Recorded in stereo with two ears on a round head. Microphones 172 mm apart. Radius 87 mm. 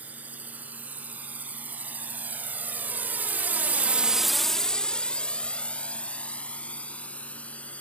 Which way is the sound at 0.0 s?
10° right (ahead or behind).